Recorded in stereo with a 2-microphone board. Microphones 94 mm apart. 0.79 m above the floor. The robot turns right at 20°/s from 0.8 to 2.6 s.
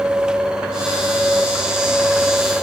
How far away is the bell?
I don't hear a bell.